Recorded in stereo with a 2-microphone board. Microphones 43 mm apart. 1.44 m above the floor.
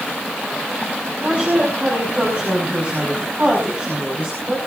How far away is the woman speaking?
About 6 m.